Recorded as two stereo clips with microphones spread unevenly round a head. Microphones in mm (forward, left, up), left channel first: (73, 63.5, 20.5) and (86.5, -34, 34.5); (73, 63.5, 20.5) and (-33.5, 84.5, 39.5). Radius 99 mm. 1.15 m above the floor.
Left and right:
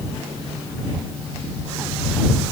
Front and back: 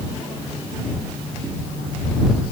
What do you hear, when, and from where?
Only background noise.